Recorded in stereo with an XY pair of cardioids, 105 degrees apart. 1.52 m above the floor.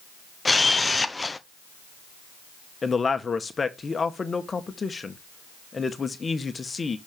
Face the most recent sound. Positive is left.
turn(degrees=30)